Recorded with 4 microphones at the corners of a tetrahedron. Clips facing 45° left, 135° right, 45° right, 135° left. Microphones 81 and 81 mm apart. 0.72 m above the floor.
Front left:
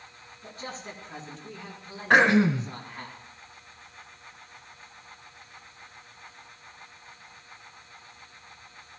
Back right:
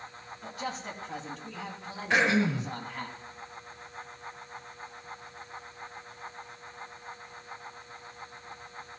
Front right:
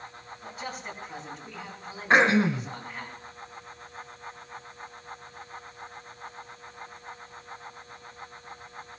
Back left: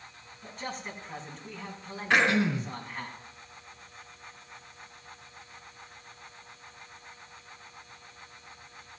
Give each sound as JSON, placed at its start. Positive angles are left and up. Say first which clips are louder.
{"t": 0.4, "sound": "a man speaking", "louder": "back right 3 dB, even", "azimuth_deg": -130, "distance_m": 5.0}
{"t": 2.1, "sound": "throat clearing", "louder": "front left 6 dB, front right 4 dB", "azimuth_deg": 10, "distance_m": 1.7}